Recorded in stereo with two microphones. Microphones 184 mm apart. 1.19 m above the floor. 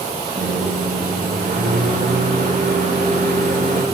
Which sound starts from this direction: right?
A microwave, at 0.4 s.